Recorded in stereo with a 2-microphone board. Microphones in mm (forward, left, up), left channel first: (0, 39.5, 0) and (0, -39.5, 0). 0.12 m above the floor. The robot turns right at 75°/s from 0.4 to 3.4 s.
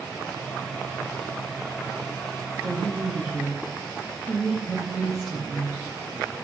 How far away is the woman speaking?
About 3.5 m.